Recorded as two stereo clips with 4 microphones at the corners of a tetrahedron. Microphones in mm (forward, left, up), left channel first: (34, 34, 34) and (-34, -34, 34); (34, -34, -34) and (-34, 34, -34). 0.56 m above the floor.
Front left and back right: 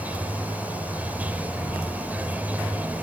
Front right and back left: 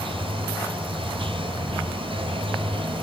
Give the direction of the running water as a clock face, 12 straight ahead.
7 o'clock.